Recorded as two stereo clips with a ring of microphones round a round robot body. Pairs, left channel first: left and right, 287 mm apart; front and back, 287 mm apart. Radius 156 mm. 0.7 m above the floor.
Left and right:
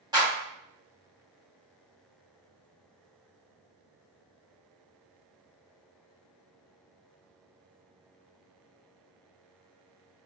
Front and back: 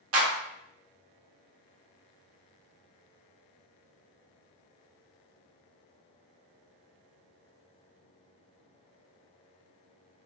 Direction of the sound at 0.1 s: 165° right.